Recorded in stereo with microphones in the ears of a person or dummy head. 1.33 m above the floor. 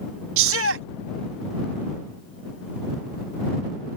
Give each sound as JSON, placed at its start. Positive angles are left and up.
{"t": 0.4, "sound": "a shout", "side_deg": -75}